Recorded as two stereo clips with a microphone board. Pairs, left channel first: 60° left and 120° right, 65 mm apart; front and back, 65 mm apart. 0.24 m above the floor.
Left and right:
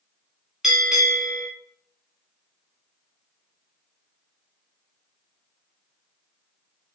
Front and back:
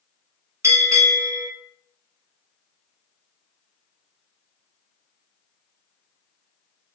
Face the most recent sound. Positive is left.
turn(degrees=155)